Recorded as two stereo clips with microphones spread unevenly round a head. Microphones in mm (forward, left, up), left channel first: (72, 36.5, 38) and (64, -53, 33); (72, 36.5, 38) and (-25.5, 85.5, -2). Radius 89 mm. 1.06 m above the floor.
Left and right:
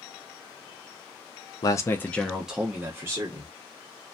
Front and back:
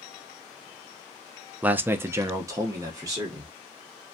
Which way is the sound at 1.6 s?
110° left.